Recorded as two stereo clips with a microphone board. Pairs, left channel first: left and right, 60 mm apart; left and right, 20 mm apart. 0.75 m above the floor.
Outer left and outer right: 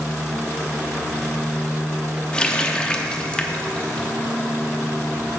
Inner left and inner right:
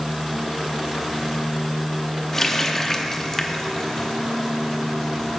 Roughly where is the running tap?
Centre.